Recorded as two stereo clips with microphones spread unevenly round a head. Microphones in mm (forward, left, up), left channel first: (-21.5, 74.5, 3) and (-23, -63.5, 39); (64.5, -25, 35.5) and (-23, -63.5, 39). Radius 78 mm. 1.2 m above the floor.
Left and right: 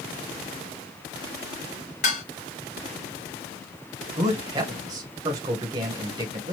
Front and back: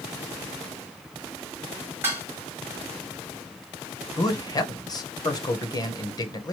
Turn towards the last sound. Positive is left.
turn(degrees=-20)